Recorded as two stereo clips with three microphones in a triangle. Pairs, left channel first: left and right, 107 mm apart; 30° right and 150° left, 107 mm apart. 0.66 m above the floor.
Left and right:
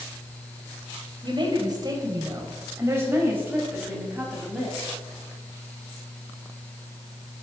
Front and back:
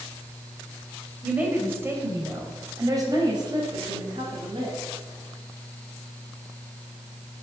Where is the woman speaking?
135° right, 3 m; by 4.8 s 175° right, 4 m.